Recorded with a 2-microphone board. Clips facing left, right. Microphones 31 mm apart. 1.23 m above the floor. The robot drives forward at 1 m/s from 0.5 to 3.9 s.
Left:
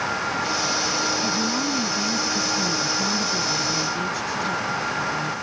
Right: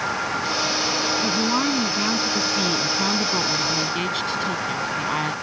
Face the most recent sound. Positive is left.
turn(degrees=-55)  # may be behind; listen again after turning